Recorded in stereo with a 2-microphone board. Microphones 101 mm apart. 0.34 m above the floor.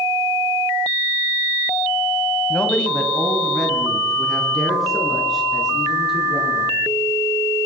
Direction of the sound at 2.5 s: 10° left (ahead or behind).